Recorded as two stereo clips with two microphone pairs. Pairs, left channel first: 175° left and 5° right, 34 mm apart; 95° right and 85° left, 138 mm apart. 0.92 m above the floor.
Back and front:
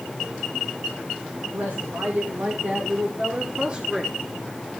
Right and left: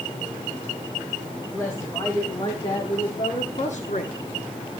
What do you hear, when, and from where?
1.5 s a woman speaking: 25° right, 3.5 m; by 4.2 s 80° right, 1.6 m